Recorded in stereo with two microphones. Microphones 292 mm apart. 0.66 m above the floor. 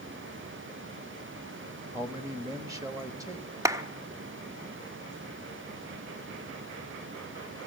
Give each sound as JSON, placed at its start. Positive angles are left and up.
{"t": 1.9, "sound": "a man speaking", "side_deg": -10, "distance_m": 1.2}
{"t": 3.6, "sound": "a clap", "side_deg": -10, "distance_m": 0.9}